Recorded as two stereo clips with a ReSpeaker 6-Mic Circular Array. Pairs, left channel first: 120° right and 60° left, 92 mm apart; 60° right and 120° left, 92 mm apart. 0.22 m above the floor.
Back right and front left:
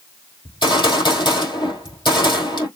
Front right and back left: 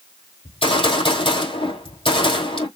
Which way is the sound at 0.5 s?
80° right.